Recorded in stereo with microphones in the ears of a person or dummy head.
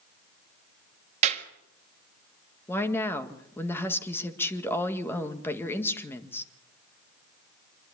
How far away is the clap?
About 1.9 m.